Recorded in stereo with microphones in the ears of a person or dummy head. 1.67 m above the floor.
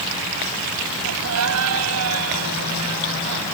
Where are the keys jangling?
No keys jangling in this recording.